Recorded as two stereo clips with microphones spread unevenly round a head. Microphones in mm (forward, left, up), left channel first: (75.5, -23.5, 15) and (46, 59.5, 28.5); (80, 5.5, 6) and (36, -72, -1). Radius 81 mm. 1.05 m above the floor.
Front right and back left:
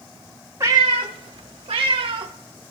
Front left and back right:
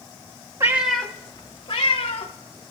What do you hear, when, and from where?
0.6 s a cat meowing: 175° left, 0.5 m; by 2.3 s 105° left, 1.3 m